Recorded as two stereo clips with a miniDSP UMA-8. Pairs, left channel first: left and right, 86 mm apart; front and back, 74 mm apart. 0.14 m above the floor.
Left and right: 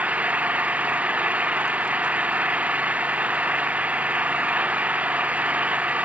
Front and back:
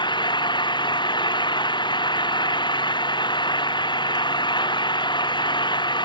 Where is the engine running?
15° right.